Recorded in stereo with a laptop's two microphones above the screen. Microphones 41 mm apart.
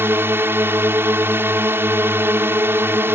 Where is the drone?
70° right (ahead or behind).